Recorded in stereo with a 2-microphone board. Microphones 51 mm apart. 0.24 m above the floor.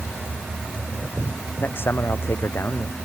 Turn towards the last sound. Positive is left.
turn(degrees=55)  # may be behind; listen again after turning